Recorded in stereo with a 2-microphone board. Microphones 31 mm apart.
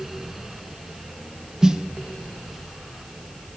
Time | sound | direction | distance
1.6 | a snare drum | 25° right (ahead or behind) | 0.7 m